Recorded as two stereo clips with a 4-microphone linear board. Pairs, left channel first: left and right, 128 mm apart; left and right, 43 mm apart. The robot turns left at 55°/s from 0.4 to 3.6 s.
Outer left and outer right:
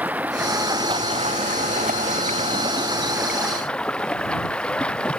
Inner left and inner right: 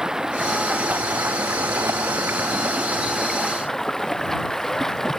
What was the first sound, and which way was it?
Running water, 10° right.